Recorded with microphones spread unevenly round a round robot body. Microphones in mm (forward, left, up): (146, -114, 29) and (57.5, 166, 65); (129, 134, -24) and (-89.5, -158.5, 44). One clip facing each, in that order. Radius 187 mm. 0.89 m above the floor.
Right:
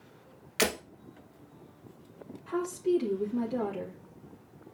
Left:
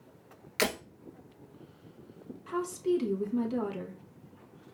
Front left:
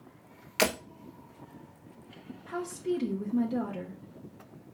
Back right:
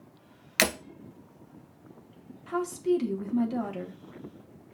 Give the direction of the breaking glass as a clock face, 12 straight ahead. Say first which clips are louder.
Right 1 dB, front left 1 dB; 6 o'clock.